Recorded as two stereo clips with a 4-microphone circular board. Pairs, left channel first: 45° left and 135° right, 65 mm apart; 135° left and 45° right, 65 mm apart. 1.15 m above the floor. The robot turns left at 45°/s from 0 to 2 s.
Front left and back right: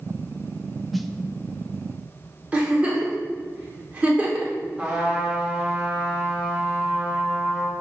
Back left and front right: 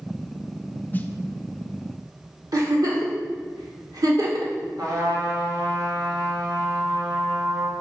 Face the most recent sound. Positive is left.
turn(degrees=-60)